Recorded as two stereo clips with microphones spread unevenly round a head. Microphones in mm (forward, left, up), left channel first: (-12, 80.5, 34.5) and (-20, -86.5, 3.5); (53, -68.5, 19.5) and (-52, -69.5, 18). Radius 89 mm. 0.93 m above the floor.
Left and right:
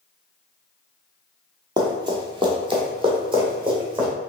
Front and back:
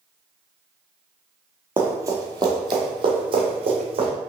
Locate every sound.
1.8 s running footsteps: 150° right, 0.9 m; by 4.1 s 160° right, 2 m